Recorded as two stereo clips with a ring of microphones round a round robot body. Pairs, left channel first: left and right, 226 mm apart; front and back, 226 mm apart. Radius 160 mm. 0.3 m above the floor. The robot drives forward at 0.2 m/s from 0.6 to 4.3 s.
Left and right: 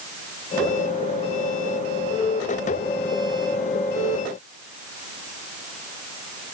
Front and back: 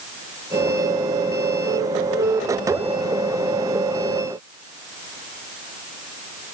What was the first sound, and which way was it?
Only background noise.